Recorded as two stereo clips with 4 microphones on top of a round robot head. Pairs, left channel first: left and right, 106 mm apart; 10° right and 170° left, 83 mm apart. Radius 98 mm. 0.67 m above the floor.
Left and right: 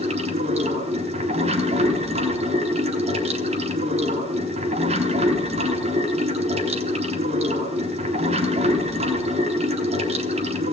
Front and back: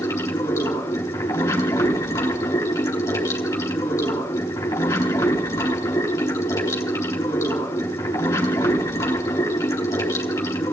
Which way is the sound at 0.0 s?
70° right.